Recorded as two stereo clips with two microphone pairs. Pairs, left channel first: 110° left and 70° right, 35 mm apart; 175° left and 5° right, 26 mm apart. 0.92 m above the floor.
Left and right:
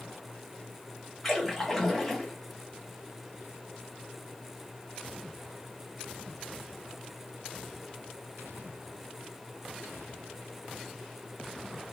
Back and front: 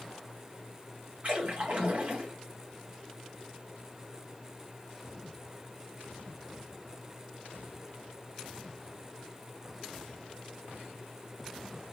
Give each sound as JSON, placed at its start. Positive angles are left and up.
{"t": 1.2, "sound": "a splash", "azimuth_deg": 25, "distance_m": 1.0}